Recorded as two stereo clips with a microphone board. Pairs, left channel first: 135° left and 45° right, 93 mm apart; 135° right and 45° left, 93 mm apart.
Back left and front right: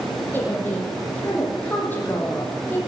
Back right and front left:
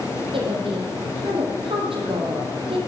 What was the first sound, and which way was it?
A woman speaking, 65° left.